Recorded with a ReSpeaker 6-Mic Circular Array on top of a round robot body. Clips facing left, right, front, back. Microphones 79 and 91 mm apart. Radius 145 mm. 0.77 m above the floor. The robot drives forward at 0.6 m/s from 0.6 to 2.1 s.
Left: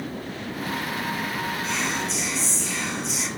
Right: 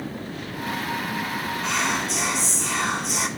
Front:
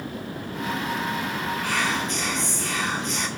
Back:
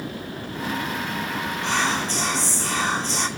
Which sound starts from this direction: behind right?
Whispering, at 1.6 s.